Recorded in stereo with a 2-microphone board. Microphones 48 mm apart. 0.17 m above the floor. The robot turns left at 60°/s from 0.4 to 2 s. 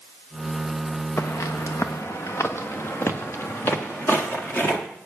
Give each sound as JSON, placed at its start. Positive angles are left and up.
{"t": 1.2, "sound": "footsteps", "side_deg": 55, "distance_m": 1.0}